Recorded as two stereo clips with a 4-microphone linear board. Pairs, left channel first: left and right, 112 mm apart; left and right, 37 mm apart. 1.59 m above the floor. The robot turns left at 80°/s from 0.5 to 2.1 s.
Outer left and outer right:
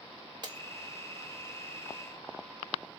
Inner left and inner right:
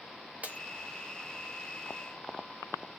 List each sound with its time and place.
0.4 s breaking glass: 40° right (ahead or behind), 1.2 m; by 0.6 s 35° right (ahead or behind), 1.2 m